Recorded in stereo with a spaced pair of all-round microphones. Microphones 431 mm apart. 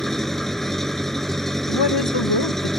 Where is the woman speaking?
65° left (ahead or behind).